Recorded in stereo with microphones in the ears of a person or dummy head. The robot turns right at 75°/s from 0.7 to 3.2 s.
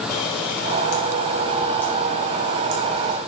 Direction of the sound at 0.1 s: 80° left.